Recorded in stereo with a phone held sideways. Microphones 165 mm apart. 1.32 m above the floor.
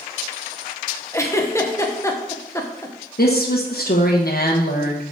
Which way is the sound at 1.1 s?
20° left (ahead or behind).